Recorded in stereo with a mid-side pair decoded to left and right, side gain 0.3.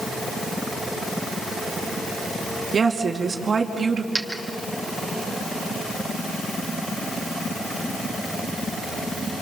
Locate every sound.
2.7 s a woman speaking: 60° right, 3 m
4.2 s a dropped coin: 30° right, 3.5 m